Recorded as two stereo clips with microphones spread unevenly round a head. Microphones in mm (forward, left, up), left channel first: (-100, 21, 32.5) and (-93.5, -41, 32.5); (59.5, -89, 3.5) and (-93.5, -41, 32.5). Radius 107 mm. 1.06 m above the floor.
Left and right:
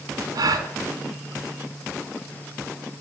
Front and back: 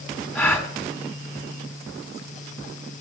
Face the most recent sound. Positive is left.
turn(degrees=-95)